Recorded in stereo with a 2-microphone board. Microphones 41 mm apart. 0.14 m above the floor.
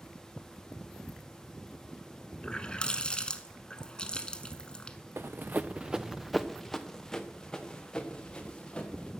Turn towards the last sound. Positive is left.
turn(degrees=25)  # may be behind; listen again after turning